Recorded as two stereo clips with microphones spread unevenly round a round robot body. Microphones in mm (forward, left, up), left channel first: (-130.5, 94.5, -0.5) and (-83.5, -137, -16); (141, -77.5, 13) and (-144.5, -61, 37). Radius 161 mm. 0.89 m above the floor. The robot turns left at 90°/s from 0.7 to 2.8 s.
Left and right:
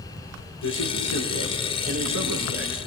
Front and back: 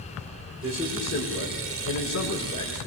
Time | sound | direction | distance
0.6 | a man speaking | 105° left | 9 m